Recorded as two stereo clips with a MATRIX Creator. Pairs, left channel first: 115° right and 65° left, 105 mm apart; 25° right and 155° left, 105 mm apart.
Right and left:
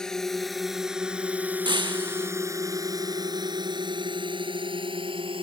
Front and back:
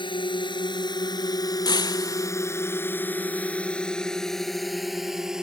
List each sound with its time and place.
0.0 s a drone: 30° right; by 5.4 s 75° left
1.6 s breaking glass: 25° left